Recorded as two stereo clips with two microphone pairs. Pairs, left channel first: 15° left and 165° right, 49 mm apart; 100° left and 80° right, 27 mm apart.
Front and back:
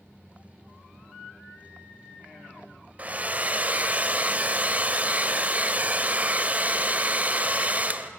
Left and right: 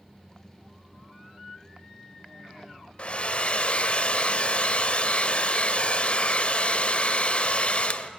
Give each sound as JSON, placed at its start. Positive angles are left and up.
{"t": 3.0, "sound": "a hair dryer", "azimuth_deg": 135, "distance_m": 0.9}